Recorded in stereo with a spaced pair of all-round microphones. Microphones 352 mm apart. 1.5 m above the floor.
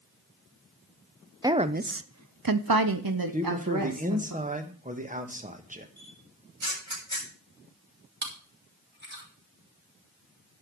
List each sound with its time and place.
1.4 s a woman speaking: 10° right (ahead or behind), 0.8 m; by 4.3 s 60° right (ahead or behind), 1.8 m
3.3 s a man speaking: 20° right (ahead or behind), 1.4 m
6.0 s a camera shutter: 55° right (ahead or behind), 7 m
8.2 s chewing: 30° right (ahead or behind), 3.5 m